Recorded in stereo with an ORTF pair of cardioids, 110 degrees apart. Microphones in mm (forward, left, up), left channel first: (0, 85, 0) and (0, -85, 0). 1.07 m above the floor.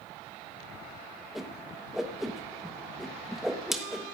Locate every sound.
1.4 s a whoosh: straight ahead, 1.2 m